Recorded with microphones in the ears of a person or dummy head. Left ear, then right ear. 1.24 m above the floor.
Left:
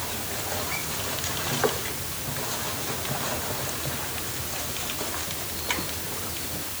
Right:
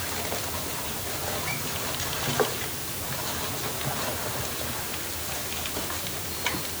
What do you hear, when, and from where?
Only background noise.